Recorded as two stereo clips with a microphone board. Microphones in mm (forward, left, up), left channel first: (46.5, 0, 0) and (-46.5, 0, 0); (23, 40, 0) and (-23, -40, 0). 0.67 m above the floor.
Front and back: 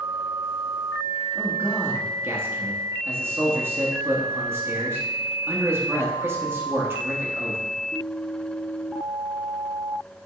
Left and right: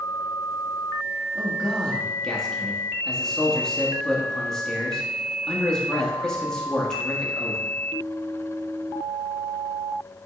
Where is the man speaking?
135° left, 1.4 m.